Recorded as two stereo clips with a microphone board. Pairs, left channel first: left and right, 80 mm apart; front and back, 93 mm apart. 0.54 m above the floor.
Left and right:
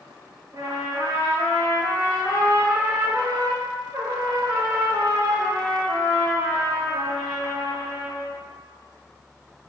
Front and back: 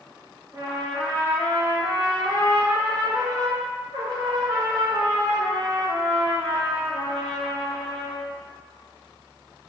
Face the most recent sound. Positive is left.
turn(degrees=-135)